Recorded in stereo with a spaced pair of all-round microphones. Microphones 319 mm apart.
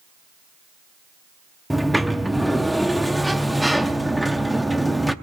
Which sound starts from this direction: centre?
A sliding door, at 1.7 s.